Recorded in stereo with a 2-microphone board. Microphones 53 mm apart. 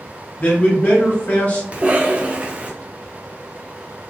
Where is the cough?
25° right (ahead or behind), 0.7 m.